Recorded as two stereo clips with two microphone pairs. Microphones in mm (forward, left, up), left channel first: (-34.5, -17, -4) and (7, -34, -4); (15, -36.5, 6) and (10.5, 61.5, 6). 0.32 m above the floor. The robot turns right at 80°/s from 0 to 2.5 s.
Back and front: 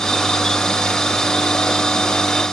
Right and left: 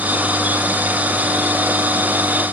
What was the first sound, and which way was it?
Only background noise.